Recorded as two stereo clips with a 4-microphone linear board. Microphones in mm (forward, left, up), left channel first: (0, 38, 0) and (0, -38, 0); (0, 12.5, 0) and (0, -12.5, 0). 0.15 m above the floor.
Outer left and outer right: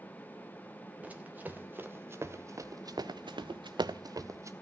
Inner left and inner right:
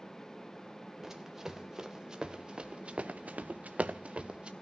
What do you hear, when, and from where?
1.0 s running footsteps: 20° right (ahead or behind), 1.8 m; by 4.5 s 40° right (ahead or behind), 1.0 m